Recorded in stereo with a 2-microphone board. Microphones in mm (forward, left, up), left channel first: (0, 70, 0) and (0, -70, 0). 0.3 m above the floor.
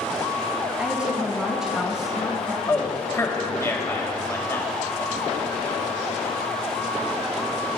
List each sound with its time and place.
0.8 s a woman speaking: 10° right (ahead or behind), 1.9 m; by 2.6 s 5° right (ahead or behind), 3.5 m
2.7 s a man speaking: 25° left (ahead or behind), 1.7 m